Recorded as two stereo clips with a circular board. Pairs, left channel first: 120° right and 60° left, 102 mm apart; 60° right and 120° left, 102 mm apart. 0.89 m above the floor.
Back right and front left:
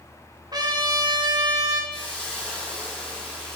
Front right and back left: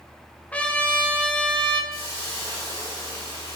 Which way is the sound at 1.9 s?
40° right.